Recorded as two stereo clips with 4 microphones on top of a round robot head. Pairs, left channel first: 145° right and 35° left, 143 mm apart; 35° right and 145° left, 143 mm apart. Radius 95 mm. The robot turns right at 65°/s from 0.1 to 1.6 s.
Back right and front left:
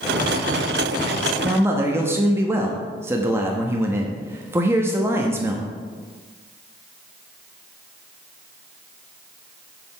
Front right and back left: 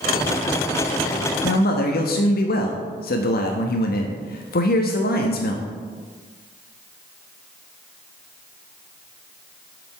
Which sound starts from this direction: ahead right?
A man speaking, at 1.4 s.